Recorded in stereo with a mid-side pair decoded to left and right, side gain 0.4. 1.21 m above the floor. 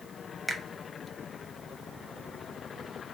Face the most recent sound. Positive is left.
turn(degrees=5)